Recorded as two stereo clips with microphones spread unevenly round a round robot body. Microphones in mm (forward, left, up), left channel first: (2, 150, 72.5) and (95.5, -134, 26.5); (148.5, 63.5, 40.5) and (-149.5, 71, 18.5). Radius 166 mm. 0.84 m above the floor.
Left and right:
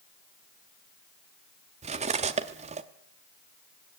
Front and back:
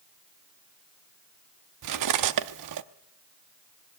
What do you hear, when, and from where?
1.8 s cutlery clinking: 145° right, 0.6 m